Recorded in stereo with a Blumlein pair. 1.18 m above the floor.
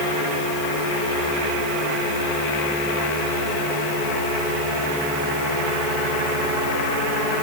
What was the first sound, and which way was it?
Only background noise.